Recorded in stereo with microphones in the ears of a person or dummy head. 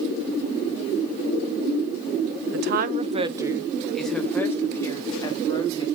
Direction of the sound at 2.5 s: 65° right (ahead or behind).